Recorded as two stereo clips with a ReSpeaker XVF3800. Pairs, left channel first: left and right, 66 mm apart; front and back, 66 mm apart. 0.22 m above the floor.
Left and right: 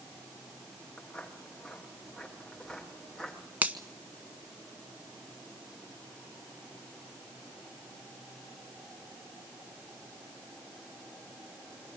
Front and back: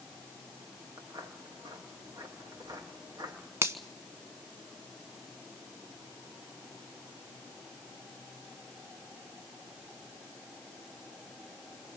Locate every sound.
1.0 s footsteps: 165° left, 5.5 m; by 3.4 s 175° left, 8.5 m
3.6 s a finger snap: 145° right, 1.4 m